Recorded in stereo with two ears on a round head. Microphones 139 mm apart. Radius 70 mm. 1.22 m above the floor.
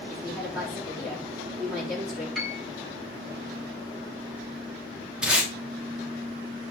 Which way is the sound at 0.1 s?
10° right (ahead or behind).